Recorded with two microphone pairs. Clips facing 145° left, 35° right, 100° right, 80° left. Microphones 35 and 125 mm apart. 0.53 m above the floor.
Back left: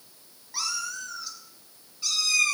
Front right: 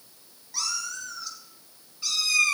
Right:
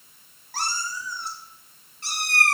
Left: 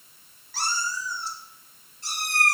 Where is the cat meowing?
140° right, 2.5 m; by 2.5 s 115° right, 3 m.